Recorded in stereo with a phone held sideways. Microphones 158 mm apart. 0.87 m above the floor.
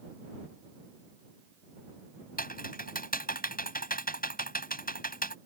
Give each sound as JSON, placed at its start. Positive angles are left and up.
{"t": 2.4, "sound": "typing on a keyboard", "side_deg": 60}